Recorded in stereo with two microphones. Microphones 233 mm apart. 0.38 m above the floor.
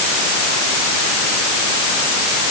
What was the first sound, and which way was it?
Only background noise.